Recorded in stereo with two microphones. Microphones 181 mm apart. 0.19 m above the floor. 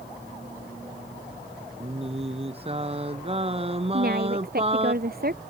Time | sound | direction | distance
1.8 | singing | 30° right (ahead or behind) | ?
3.9 | a woman speaking | 55° right (ahead or behind) | ?